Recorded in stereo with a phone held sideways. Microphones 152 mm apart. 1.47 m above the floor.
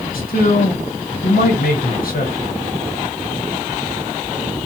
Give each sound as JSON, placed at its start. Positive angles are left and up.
{"t": 0.1, "sound": "a man speaking", "side_deg": 70, "distance_m": 1.0}